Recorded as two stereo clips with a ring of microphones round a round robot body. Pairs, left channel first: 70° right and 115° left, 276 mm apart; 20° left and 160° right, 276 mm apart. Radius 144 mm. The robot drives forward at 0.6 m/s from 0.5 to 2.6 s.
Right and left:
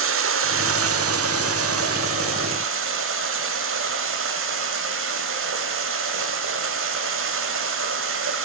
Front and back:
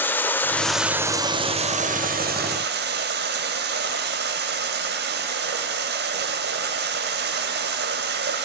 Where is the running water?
105° left, 1.1 m; by 8.4 s 150° left, 1.8 m.